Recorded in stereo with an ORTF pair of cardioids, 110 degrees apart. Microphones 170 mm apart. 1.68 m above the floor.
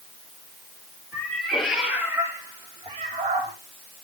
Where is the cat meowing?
10° left, 3 m; by 3.5 s 50° right, 2.5 m.